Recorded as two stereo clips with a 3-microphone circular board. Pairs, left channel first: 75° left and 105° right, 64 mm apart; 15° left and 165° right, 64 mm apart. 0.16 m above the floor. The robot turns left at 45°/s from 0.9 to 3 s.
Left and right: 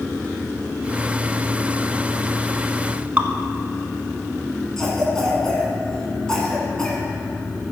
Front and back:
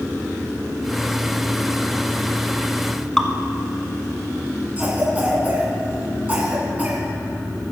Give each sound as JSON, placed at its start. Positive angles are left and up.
{"t": 3.2, "sound": "dripping", "azimuth_deg": -60, "distance_m": 1.0}
{"t": 4.8, "sound": "a cough", "azimuth_deg": 150, "distance_m": 1.9}